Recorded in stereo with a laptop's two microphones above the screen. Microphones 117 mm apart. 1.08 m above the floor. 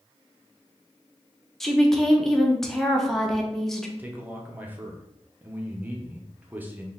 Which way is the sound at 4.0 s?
15° right (ahead or behind).